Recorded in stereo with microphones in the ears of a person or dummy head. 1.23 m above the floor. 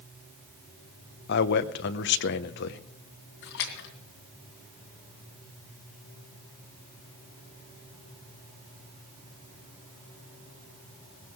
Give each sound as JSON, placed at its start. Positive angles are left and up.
{"t": 1.3, "sound": "a man speaking", "side_deg": 60, "distance_m": 0.9}
{"t": 3.4, "sound": "a splash", "side_deg": 65, "distance_m": 2.5}